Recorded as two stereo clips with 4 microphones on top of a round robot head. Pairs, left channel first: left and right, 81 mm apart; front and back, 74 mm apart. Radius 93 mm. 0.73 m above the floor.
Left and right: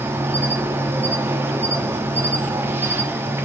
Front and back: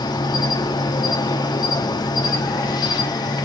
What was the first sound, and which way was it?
An insect, 25° right.